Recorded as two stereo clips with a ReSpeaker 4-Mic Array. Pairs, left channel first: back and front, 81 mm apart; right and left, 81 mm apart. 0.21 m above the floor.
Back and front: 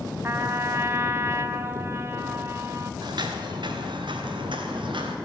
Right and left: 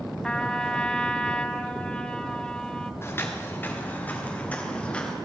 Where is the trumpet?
20° right, 0.7 m.